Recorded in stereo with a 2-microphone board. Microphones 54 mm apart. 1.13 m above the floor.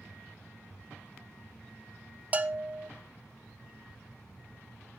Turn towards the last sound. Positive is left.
turn(degrees=-30)  # may be behind; listen again after turning